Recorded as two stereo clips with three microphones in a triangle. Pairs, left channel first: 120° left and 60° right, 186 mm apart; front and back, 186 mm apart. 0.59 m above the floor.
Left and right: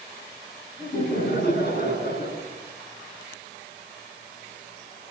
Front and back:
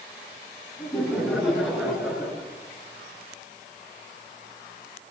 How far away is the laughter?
About 8 m.